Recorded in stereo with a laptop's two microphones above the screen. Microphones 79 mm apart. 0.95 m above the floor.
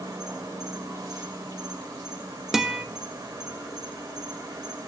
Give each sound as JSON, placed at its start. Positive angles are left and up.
{"t": 0.0, "sound": "an insect", "side_deg": -70, "distance_m": 3.0}
{"t": 2.5, "sound": "a guitar", "side_deg": -5, "distance_m": 0.7}